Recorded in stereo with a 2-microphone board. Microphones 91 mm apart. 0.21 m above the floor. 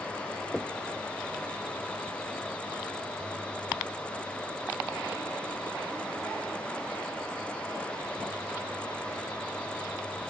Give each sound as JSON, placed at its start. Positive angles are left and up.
{"t": 0.5, "sound": "knocking", "side_deg": 0}